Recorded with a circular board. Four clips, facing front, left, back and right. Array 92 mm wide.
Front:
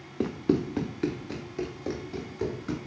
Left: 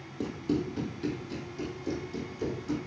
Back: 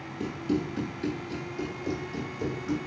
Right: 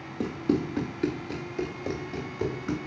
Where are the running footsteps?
15° right, 0.7 m; by 2.8 s 70° right, 1.9 m.